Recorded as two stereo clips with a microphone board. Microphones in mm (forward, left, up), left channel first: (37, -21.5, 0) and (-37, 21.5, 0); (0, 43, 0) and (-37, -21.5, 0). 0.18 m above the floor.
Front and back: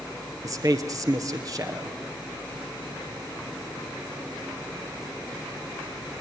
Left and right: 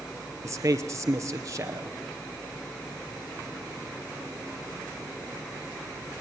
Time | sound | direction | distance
0.4 | a man speaking | 165° right | 3.5 m